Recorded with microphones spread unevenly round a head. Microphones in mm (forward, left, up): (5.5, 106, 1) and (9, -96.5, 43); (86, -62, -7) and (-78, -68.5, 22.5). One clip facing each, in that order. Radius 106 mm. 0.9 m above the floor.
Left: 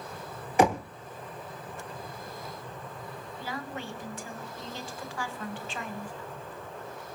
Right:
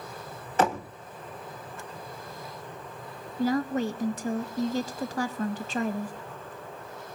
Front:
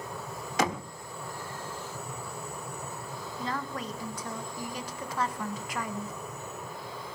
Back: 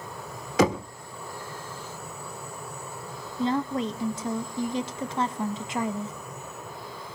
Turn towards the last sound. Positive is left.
turn(degrees=-115)